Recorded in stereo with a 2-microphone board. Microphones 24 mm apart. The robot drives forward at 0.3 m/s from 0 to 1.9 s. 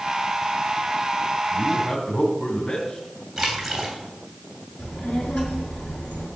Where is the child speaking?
75° left (ahead or behind), 5.5 m.